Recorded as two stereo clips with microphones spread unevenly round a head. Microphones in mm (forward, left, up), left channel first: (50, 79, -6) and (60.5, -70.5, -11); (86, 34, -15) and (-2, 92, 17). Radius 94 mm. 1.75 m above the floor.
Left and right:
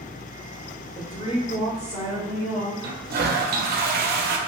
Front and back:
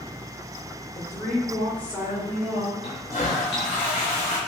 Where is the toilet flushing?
90° right, 0.5 m.